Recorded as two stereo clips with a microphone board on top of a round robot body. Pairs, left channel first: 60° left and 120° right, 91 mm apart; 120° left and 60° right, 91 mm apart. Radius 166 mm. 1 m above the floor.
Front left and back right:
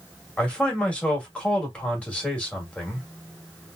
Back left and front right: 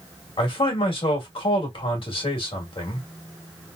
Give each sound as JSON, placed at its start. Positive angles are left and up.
{"t": 0.4, "sound": "a man speaking", "azimuth_deg": 135, "distance_m": 1.8}